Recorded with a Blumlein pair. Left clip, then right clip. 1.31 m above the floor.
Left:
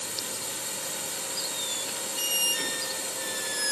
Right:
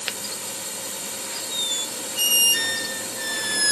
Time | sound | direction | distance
0.0 | a drone | 5° right | ?
1.5 | a squeak | 65° right | ?